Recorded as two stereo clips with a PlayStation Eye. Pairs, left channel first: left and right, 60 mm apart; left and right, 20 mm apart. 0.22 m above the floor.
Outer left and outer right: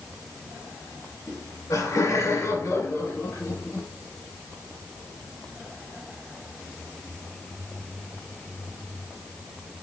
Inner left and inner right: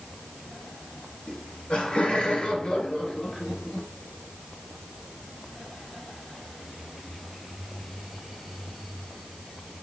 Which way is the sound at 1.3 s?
65° left (ahead or behind).